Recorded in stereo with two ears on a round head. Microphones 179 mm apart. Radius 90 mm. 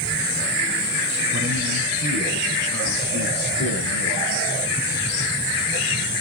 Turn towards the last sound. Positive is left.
turn(degrees=-60)  # may be behind; listen again after turning